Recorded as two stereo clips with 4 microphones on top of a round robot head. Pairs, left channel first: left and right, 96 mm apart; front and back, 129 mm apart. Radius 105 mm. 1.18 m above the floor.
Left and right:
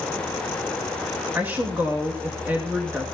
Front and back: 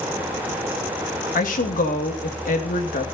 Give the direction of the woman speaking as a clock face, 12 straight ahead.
12 o'clock.